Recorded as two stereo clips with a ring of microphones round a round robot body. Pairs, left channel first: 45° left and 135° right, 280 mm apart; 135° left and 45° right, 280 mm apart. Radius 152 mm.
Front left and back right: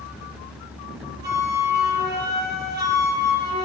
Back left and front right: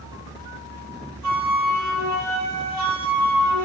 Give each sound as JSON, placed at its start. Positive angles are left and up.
{"t": 1.2, "sound": "a flute", "azimuth_deg": -80, "distance_m": 4.5}